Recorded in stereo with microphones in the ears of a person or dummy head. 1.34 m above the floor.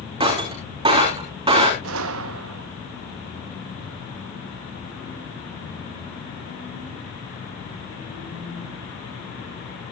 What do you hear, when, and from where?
0.2 s breaking glass: 25° right (ahead or behind), 3 m
1.8 s a gunshot: 80° right, 0.9 m